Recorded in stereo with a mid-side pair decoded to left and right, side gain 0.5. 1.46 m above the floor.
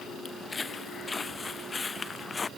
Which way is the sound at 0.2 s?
25° left.